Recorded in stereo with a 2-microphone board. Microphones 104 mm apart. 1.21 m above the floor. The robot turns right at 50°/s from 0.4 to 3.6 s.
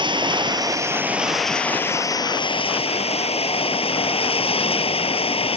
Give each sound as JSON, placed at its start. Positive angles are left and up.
{"t": 0.0, "sound": "running water", "azimuth_deg": -50}